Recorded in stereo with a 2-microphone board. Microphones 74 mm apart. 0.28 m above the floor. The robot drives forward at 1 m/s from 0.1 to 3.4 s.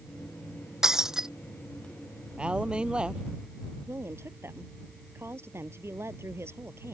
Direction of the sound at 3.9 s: 35° right (ahead or behind).